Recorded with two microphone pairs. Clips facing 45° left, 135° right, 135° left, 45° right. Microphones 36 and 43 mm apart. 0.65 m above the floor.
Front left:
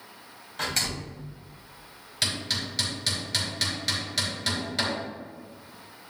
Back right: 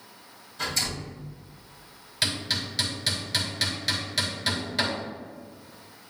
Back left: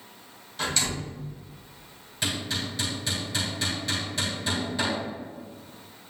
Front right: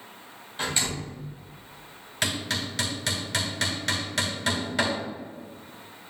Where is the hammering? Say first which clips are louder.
Back right 1 dB, front right 1 dB; 50° right, 2.5 m.